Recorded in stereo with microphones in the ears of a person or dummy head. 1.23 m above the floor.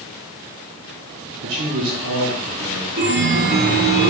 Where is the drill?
I don't hear a drill.